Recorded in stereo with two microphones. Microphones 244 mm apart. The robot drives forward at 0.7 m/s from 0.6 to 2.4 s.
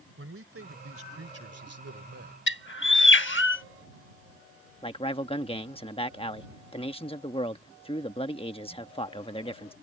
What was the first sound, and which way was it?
A man speaking, 60° right (ahead or behind).